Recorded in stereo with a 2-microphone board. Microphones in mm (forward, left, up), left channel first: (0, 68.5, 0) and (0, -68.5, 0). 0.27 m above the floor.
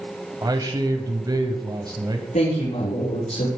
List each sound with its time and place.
0.4 s a man speaking: 30° right (ahead or behind), 1.6 m
2.3 s a woman speaking: 75° left (ahead or behind), 7 m